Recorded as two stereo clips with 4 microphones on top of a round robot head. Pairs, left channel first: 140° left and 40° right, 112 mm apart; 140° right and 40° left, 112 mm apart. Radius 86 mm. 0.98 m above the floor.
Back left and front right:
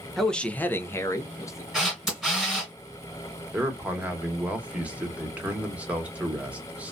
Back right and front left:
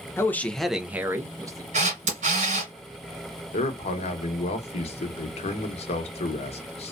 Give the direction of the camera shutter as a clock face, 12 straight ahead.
10 o'clock.